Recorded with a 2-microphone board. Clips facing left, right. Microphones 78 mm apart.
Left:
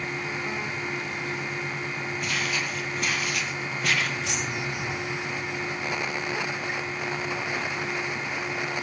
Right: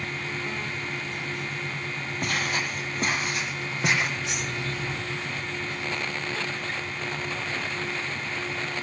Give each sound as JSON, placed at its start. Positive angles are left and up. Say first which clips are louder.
{"t": 2.2, "sound": "footsteps", "louder": "right 3 dB", "side_deg": -45, "distance_m": 2.0}
{"t": 4.2, "sound": "keys jangling", "louder": "left 1 dB", "side_deg": 85, "distance_m": 7.0}